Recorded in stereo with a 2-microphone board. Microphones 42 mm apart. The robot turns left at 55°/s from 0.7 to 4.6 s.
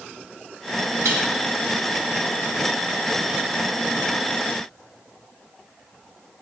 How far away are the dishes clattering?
About 1.6 m.